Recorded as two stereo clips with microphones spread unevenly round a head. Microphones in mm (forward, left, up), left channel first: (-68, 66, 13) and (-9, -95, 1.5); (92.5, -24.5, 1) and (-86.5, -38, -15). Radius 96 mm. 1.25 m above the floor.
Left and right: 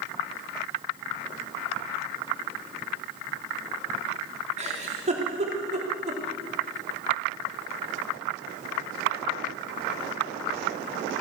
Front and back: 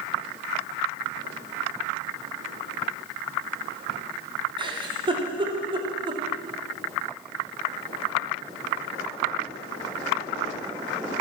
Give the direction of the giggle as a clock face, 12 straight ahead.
4 o'clock.